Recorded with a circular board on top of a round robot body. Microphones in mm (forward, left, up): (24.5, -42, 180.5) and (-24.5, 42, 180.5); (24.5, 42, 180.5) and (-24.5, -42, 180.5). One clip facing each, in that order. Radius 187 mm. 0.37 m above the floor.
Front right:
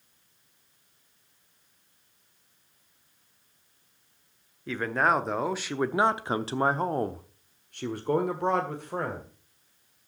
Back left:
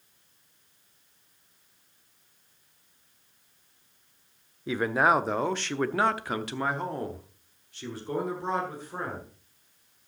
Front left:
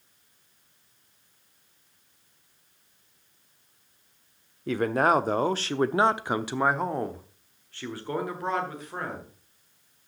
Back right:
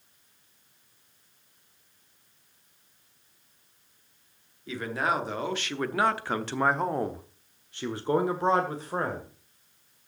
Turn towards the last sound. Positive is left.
turn(degrees=-65)